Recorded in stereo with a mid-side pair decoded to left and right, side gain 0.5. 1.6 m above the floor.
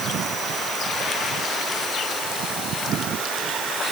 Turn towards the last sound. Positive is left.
No sound to turn to.